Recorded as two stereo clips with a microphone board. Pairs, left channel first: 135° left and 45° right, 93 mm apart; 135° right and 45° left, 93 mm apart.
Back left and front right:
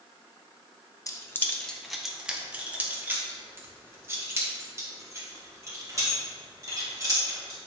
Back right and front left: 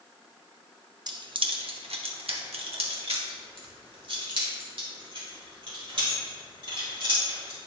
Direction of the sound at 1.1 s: 85° left.